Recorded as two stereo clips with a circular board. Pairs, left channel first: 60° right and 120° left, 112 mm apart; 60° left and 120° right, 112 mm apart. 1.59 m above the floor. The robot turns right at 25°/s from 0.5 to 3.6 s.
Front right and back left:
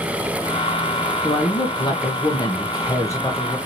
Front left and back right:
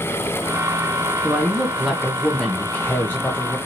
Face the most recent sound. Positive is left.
turn(degrees=5)